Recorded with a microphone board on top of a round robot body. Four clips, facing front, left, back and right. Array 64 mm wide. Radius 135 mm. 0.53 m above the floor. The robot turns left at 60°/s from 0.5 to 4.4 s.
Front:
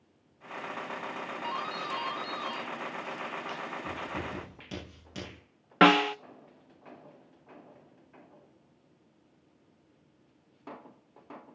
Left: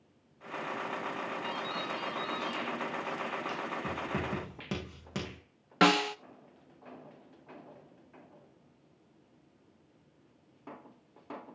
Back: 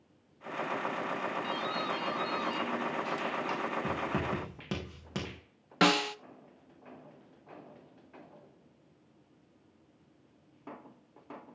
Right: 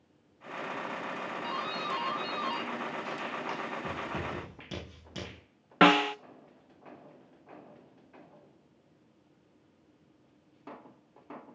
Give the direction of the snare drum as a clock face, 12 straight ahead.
1 o'clock.